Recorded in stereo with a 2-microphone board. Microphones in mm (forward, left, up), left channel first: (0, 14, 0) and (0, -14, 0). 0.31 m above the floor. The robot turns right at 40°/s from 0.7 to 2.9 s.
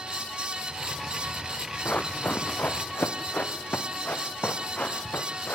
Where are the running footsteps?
45° left (ahead or behind), 1.7 m; by 5.5 s 60° left (ahead or behind), 4 m.